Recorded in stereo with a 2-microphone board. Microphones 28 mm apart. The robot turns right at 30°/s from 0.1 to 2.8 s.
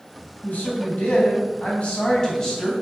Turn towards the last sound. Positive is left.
turn(degrees=170)